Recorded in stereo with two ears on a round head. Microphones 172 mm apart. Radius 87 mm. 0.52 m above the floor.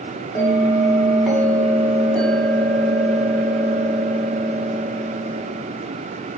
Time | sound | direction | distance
0.3 | a bell | 5° left (ahead or behind) | 0.8 m